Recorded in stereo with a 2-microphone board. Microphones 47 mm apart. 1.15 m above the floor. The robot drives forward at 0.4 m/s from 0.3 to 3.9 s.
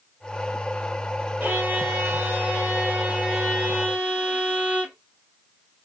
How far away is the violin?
About 1.4 m.